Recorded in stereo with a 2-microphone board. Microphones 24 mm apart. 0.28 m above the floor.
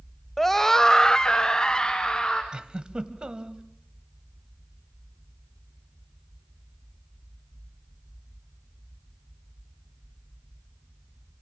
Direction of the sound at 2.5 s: 40° right (ahead or behind).